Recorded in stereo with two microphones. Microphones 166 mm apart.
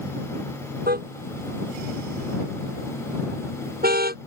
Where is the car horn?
70° right (ahead or behind).